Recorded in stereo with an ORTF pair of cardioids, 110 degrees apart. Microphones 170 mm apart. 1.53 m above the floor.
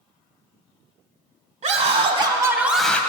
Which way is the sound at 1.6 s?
45° right.